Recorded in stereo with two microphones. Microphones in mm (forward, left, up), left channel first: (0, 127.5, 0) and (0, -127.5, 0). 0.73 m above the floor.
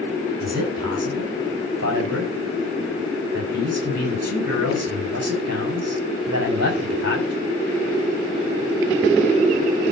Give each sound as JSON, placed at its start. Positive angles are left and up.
{"t": 0.4, "sound": "a man speaking", "side_deg": -80, "distance_m": 6.5}